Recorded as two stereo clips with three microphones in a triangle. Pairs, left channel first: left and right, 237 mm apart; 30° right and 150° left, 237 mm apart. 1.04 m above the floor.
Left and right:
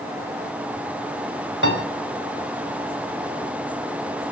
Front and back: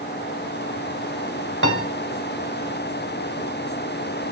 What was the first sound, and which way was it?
A piano, 120° left.